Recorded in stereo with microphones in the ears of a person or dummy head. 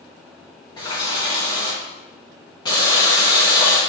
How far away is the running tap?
About 1.0 m.